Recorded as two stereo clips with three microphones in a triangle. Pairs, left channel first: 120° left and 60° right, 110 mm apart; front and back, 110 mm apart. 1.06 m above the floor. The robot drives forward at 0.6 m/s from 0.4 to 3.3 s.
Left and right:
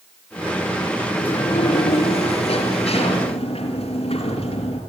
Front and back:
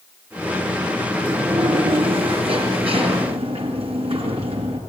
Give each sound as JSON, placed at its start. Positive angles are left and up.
{"t": 1.1, "sound": "a sliding door", "azimuth_deg": 140, "distance_m": 4.0}